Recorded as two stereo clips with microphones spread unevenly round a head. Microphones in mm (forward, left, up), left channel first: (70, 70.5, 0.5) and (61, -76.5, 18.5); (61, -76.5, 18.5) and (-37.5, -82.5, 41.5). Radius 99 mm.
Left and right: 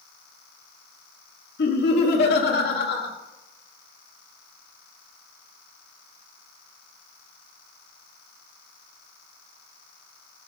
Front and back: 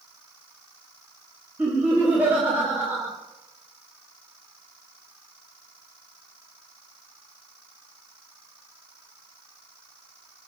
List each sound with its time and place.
1.6 s laughter: 100° left, 1.7 m